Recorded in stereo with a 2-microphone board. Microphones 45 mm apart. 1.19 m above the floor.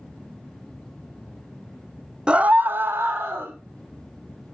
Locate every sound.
2.3 s a scream: 20° right (ahead or behind), 0.5 m; by 3.5 s 55° right (ahead or behind), 1.3 m